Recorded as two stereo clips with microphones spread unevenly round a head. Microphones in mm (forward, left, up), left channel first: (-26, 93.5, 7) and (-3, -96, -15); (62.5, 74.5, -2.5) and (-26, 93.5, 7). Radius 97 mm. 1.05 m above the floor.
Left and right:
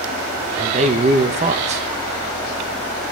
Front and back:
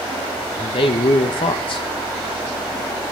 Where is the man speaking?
30° right, 0.8 m.